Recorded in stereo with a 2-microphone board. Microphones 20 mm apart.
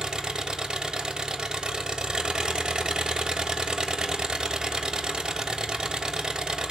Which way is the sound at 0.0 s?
45° right (ahead or behind).